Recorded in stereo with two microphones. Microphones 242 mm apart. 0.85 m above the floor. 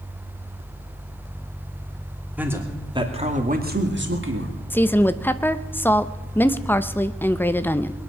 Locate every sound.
2.4 s a man speaking: 5° right (ahead or behind), 2.5 m; by 4.5 s 60° right (ahead or behind), 2 m
4.7 s a woman speaking: 10° left (ahead or behind), 0.7 m